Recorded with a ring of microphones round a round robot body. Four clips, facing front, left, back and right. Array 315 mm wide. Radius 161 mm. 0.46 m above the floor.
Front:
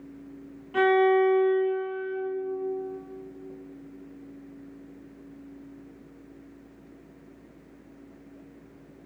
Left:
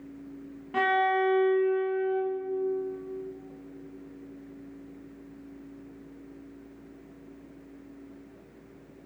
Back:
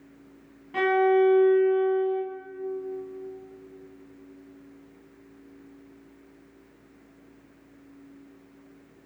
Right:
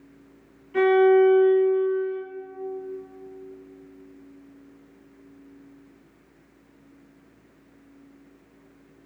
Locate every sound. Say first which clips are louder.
0.7 s a violin: right 9 dB, even; 100° left, 2 m